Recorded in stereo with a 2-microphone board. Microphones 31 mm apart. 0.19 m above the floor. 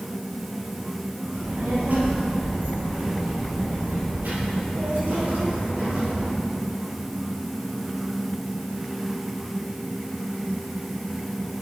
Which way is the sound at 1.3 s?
60° right (ahead or behind).